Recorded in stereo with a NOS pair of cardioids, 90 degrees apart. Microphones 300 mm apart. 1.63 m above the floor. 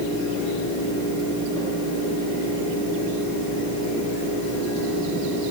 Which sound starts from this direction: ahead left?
A fan, at 0.0 s.